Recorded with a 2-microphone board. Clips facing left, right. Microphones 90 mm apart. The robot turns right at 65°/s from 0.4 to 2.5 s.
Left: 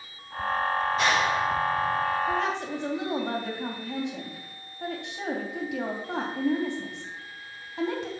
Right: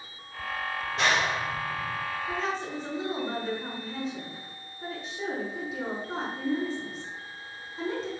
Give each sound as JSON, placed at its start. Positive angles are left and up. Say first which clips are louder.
{"t": 1.0, "sound": "a clap", "louder": "right 1 dB", "side_deg": -75, "distance_m": 6.0}
{"t": 2.3, "sound": "a woman speaking", "louder": "left 4 dB", "side_deg": 60, "distance_m": 3.0}